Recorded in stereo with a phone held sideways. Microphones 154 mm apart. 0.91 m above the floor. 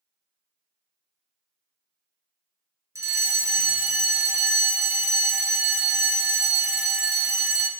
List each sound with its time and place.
3.0 s a fire alarm: 20° right (ahead or behind), 1.2 m